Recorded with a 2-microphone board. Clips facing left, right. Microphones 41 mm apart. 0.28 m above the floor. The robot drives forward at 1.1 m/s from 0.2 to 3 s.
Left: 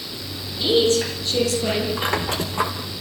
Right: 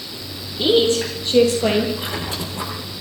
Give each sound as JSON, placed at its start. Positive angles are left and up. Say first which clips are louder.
{"t": 0.6, "sound": "a woman speaking", "louder": "right 2 dB", "side_deg": -25, "distance_m": 8.5}
{"t": 2.0, "sound": "a squeak", "louder": "left 4 dB", "side_deg": 55, "distance_m": 4.5}